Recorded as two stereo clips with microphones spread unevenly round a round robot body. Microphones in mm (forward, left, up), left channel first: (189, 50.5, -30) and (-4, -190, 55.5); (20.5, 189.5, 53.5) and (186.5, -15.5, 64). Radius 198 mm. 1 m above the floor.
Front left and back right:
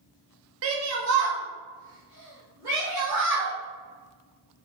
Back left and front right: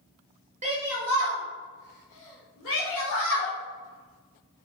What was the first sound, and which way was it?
A shout, 90° right.